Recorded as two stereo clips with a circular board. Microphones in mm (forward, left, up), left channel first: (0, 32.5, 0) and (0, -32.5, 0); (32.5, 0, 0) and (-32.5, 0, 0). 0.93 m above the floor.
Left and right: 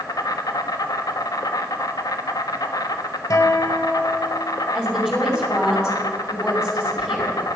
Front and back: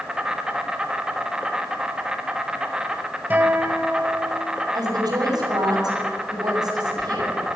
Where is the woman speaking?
175° left, 5 m.